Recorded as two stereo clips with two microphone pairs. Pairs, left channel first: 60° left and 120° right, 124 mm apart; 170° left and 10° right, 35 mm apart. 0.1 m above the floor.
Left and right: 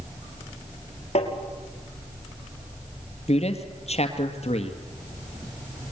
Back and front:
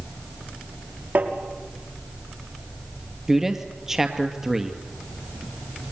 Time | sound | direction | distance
1.1 | tapping | 25° left | 6 m
3.3 | a man speaking | 65° left | 2.5 m